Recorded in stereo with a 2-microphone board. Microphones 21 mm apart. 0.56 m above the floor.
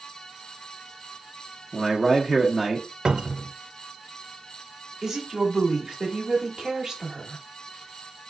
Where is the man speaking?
10° right (ahead or behind), 0.8 m.